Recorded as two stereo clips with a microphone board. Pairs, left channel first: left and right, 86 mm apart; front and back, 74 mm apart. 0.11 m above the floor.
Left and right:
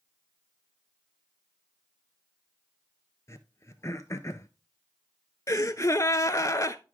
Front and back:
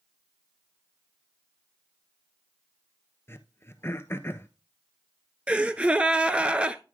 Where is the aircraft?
No aircraft in this recording.